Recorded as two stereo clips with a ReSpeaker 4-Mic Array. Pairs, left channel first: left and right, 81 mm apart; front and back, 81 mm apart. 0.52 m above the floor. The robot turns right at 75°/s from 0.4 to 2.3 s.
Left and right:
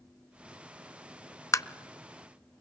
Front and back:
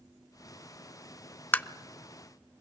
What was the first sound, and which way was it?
Tapping, 55° left.